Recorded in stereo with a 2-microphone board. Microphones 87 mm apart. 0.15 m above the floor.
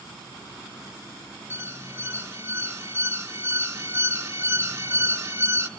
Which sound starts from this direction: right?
An alarm, at 1.5 s.